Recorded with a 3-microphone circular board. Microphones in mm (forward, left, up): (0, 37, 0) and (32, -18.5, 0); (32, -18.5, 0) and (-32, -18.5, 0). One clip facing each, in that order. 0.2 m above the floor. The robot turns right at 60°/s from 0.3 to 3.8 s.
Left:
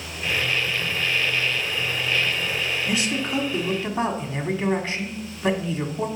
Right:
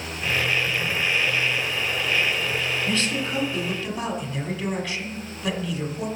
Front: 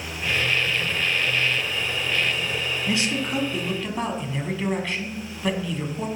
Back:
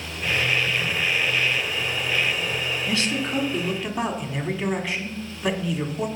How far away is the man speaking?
About 1.3 m.